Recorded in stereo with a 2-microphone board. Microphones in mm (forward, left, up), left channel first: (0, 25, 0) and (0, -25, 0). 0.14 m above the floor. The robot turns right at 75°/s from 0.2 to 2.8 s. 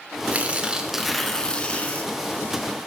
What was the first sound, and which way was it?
Tearing paper, 60° right.